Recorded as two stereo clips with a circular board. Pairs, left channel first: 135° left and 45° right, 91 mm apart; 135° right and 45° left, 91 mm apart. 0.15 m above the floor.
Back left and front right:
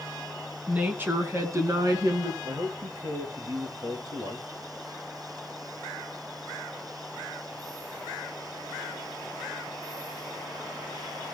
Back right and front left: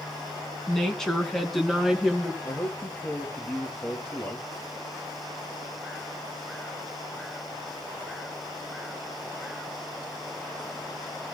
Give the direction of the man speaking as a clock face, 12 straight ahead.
2 o'clock.